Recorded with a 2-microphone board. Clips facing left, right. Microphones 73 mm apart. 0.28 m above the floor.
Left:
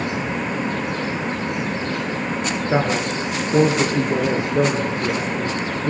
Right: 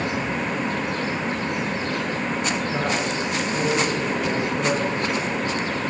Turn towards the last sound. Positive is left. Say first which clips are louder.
# left 4 dB
turn(degrees=60)  # may be behind; listen again after turning